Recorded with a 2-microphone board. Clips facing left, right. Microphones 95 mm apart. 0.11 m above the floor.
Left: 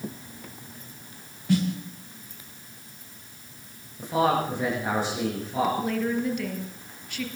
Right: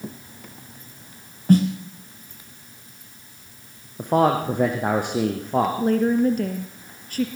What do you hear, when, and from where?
1.5 s a snare drum: 40° right (ahead or behind), 3.5 m
4.0 s a man speaking: 55° right (ahead or behind), 4.5 m
5.8 s a woman speaking: 40° right (ahead or behind), 2.5 m